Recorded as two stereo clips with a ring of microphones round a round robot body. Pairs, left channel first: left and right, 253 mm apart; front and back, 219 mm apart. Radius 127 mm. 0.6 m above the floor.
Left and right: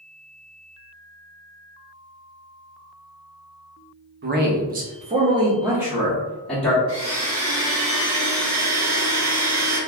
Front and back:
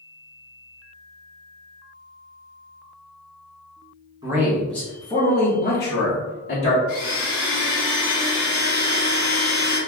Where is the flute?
No flute in this recording.